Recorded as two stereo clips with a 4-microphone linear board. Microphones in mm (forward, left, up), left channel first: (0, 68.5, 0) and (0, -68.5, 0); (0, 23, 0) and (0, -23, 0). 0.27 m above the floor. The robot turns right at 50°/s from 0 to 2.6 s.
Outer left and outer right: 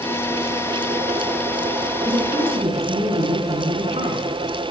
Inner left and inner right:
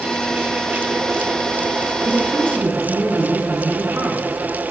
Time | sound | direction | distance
2.0 | a woman speaking | 25° right (ahead or behind) | 3 m